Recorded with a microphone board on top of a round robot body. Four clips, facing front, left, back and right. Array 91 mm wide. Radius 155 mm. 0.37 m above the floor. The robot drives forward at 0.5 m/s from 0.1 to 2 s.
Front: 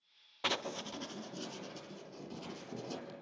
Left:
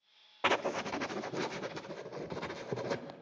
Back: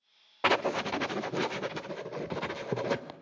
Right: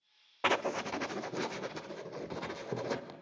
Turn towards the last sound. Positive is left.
turn(degrees=180)